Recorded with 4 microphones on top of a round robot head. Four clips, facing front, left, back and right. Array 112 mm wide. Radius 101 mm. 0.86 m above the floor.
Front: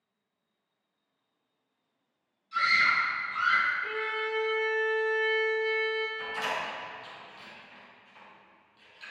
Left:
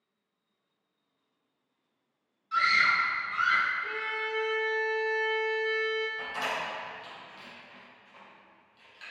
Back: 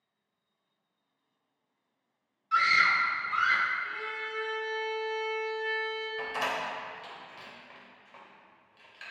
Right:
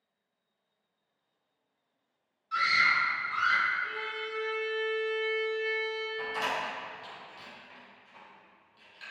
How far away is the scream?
About 3 m.